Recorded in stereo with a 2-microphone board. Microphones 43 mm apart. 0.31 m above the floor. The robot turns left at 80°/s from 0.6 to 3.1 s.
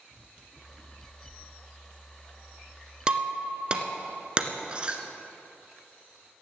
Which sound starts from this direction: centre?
Breaking glass, at 3.1 s.